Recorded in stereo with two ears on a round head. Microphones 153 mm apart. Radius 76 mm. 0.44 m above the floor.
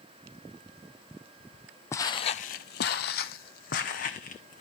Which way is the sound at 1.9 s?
15° left (ahead or behind).